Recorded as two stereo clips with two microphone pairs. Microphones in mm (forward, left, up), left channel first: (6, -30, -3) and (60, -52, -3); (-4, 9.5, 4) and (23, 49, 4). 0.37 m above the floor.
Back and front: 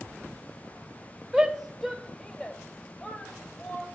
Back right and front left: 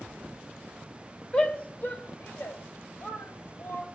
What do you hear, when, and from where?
1.3 s a shout: 80° right, 0.9 m; by 3.9 s 140° right, 2 m